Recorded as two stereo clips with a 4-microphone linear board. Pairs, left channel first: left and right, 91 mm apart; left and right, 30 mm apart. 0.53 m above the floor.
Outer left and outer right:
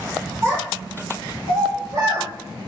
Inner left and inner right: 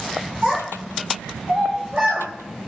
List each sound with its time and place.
0.4 s a child speaking: 45° right (ahead or behind), 1.4 m; by 2.3 s 60° right (ahead or behind), 1.0 m